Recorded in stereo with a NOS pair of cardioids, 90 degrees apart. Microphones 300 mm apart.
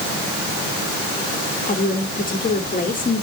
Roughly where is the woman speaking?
Ahead left.